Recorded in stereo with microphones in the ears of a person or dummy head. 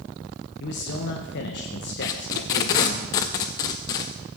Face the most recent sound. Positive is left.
turn(degrees=20)  # may be behind; listen again after turning